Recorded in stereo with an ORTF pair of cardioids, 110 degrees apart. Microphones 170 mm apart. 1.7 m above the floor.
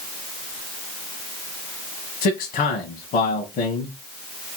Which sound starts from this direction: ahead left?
A man speaking, at 2.2 s.